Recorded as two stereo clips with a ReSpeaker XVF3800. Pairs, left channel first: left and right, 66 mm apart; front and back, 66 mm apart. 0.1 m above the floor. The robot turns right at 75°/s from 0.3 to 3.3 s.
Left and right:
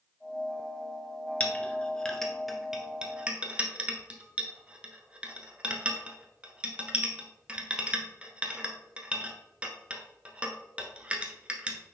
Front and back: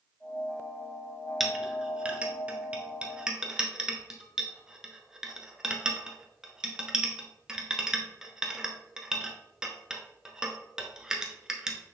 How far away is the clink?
About 1.0 m.